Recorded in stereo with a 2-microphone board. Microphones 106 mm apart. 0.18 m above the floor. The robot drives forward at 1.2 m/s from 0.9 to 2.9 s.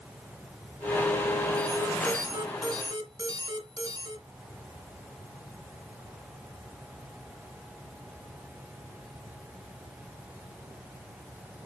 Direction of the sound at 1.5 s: 25° right (ahead or behind).